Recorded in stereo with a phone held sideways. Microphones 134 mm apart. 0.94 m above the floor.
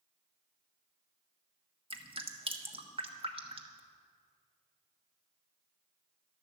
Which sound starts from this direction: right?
Dripping, at 1.9 s.